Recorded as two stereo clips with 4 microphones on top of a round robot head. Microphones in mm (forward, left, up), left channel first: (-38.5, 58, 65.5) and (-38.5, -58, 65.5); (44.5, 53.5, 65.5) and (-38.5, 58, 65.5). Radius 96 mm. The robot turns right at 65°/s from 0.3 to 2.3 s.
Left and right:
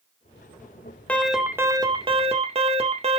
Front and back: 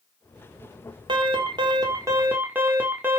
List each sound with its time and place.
1.1 s an alarm: 170° left, 2 m; by 3.2 s 115° right, 2 m